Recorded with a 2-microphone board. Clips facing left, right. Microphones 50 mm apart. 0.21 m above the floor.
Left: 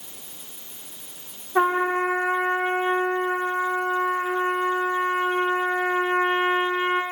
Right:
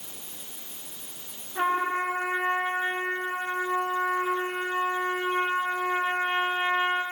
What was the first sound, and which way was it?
A trumpet, 65° left (ahead or behind).